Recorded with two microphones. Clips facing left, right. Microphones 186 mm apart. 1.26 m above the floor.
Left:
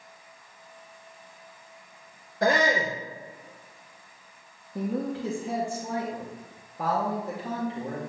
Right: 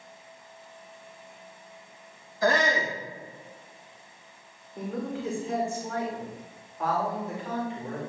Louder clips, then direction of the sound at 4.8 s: Left 3 dB; 70° left (ahead or behind).